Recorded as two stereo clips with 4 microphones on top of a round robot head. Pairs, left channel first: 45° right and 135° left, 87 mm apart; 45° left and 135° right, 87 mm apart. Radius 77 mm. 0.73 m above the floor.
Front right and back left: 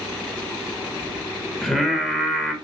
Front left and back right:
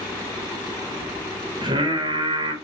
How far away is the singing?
About 1.4 m.